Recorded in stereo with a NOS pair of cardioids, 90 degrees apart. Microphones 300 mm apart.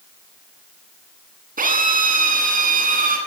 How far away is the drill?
About 9.5 m.